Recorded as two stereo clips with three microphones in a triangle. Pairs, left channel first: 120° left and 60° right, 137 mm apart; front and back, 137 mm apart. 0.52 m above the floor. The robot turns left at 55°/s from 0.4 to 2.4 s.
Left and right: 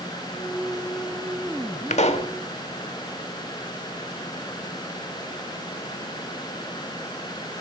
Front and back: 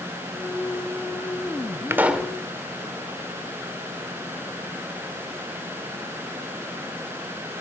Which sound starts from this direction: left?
A pop, at 1.9 s.